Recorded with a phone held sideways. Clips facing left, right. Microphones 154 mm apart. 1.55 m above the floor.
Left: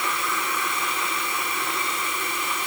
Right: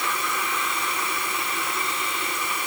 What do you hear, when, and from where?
Only background noise.